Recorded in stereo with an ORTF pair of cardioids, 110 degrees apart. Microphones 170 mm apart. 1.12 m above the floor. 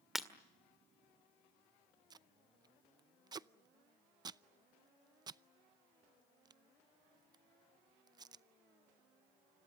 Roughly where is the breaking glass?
Ahead.